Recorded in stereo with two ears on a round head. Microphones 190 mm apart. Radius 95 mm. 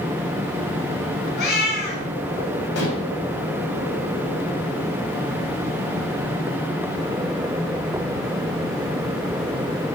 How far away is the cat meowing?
About 4.5 m.